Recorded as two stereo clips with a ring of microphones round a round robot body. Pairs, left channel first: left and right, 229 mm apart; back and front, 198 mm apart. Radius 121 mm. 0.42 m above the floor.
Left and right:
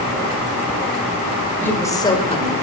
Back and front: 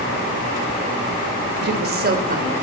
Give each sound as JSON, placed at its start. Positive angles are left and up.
{"t": 1.6, "sound": "a woman speaking", "azimuth_deg": 10, "distance_m": 2.0}